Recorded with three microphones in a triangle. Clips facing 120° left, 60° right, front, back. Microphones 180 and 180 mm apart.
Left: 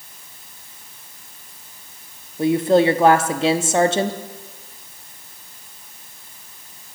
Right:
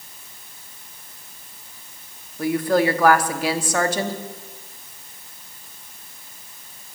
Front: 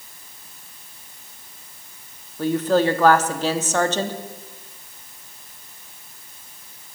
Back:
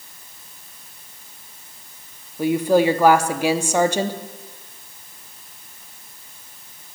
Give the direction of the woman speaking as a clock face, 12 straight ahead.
8 o'clock.